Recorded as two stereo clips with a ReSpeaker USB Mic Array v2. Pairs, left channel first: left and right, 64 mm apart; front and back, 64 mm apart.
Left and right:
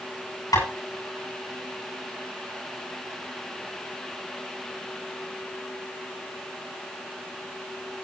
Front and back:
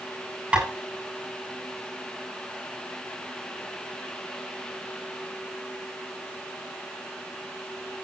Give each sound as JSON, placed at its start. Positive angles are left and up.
{"t": 0.5, "sound": "tapping", "azimuth_deg": 110, "distance_m": 9.5}